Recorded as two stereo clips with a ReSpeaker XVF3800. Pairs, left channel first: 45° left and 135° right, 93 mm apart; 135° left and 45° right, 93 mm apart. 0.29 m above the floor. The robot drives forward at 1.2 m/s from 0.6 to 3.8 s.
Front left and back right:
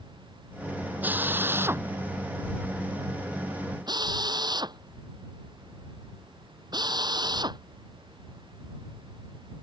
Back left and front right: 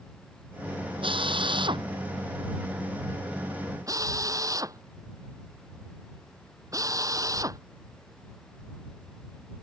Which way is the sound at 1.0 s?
65° right.